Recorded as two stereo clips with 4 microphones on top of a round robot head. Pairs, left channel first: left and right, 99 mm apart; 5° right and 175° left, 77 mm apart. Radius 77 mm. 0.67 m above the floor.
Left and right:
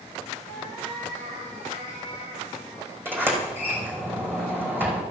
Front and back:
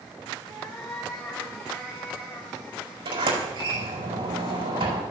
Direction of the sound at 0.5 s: 55° right.